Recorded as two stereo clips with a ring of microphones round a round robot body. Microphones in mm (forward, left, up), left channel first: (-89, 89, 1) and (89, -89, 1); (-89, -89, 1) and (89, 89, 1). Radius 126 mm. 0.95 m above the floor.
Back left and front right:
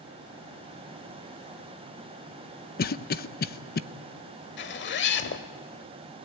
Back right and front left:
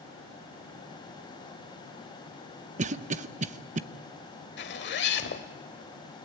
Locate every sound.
2.8 s a cough: 95° left, 0.9 m
4.6 s a zipper: straight behind, 1.3 m